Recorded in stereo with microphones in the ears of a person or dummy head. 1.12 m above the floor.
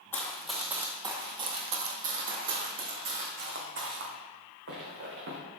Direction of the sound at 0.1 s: 10° left (ahead or behind).